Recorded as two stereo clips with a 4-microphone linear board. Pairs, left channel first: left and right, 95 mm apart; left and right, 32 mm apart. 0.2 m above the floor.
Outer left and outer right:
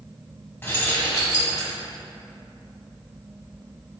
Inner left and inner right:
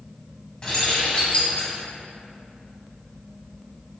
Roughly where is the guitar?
I don't hear a guitar.